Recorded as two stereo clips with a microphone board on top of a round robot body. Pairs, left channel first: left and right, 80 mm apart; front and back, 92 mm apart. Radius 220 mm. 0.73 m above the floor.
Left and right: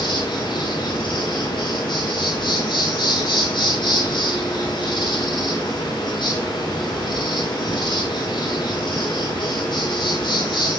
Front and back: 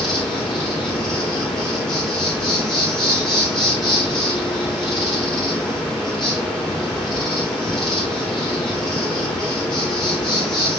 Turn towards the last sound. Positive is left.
turn(degrees=85)